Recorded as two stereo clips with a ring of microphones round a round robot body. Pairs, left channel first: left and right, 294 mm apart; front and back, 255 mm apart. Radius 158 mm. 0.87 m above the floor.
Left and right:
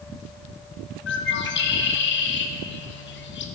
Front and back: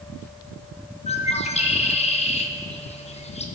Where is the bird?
55° left, 1.0 m.